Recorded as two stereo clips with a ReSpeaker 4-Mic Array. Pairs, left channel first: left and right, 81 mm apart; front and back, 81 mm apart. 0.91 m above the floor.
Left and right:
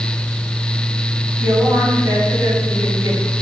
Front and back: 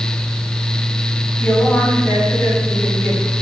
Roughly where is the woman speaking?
Ahead right.